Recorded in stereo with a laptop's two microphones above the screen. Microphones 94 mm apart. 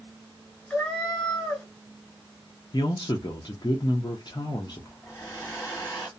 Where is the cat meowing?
10° left (ahead or behind), 1.2 m.